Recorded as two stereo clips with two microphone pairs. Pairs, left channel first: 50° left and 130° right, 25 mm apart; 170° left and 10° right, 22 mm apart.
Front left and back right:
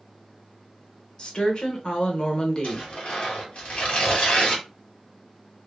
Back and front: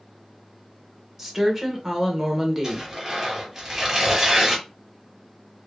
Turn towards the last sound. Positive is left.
turn(degrees=65)